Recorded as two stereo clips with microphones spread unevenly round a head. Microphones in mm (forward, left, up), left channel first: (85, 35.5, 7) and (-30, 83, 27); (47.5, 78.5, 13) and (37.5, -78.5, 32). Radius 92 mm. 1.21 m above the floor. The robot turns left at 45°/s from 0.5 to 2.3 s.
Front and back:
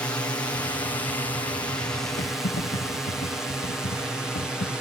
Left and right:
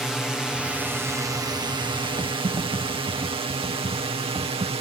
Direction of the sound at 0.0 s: 5° left.